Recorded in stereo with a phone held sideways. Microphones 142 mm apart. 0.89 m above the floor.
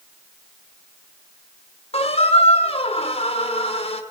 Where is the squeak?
45° left (ahead or behind), 1.4 m.